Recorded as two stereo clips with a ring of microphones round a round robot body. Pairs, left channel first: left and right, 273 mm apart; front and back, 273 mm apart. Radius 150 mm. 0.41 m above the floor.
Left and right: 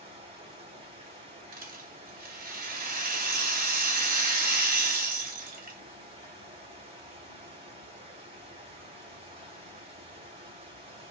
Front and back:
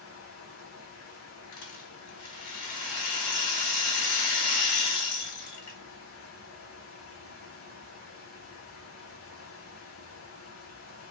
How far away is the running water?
About 1.8 m.